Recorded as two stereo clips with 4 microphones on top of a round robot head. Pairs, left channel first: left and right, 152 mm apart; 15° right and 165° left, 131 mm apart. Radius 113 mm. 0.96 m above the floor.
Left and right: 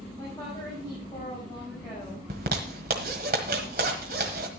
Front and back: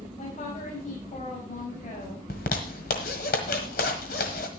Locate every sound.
0.2 s a woman speaking: 15° left, 5 m
2.3 s a zipper: 45° right, 1.3 m